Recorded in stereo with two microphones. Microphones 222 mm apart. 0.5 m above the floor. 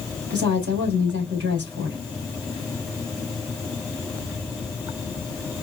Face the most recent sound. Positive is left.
turn(degrees=-55)  # may be behind; listen again after turning